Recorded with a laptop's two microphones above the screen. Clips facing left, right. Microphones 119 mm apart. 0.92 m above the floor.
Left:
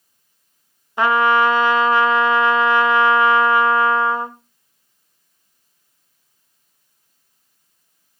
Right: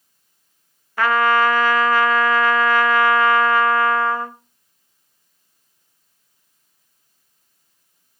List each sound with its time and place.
1.0 s a trumpet: 20° left (ahead or behind), 0.7 m